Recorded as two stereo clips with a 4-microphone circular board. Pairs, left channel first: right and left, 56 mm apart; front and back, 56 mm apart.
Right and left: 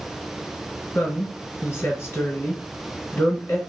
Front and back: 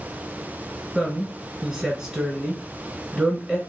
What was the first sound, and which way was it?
A woman speaking, 115° right.